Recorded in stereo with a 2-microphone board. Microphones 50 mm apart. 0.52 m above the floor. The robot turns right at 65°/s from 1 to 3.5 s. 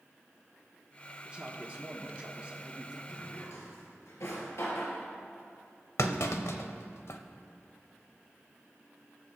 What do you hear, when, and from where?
1.2 s a man speaking: 15° right (ahead or behind), 1.1 m; by 3.2 s 5° right (ahead or behind), 1.1 m
3.1 s a drawer: 80° left, 2.5 m; by 5.0 s 70° left (ahead or behind), 2.5 m
6.0 s a clunk: 70° left (ahead or behind), 0.8 m